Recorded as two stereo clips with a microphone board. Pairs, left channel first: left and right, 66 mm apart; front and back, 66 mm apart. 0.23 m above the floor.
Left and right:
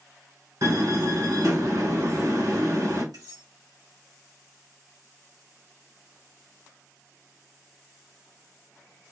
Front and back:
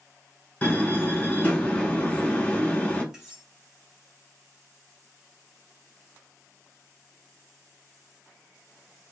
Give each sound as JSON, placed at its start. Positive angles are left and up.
{"t": 0.6, "sound": "a door slam", "azimuth_deg": -70, "distance_m": 2.0}
{"t": 3.1, "sound": "cutlery clinking", "azimuth_deg": -95, "distance_m": 2.5}